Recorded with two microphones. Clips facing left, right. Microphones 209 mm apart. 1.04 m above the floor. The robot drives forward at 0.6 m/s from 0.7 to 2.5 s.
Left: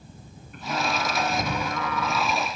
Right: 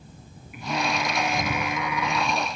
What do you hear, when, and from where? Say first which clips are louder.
0.5 s singing: right 1 dB; 10° right (ahead or behind)